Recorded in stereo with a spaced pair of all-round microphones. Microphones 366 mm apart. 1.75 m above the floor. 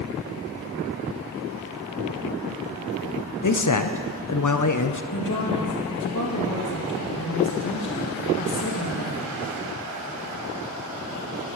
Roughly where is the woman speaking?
Left.